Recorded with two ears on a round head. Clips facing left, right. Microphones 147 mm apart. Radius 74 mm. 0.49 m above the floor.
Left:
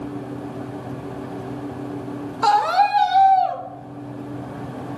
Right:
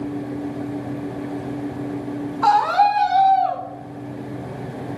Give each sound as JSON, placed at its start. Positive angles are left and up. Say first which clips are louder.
{"t": 2.4, "sound": "a scream", "louder": "right 1 dB", "side_deg": 45, "distance_m": 2.0}